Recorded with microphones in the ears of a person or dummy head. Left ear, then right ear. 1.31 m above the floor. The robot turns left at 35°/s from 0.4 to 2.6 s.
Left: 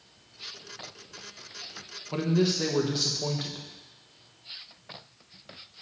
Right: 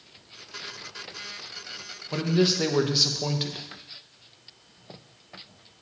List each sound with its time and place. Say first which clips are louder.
2.1 s a man speaking: right 3 dB; 5° right (ahead or behind), 0.8 m; by 3.6 s 25° right (ahead or behind), 0.8 m